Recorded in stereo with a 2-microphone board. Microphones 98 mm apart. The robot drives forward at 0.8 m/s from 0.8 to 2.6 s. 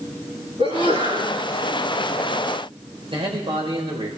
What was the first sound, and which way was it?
A sneeze, 70° right (ahead or behind).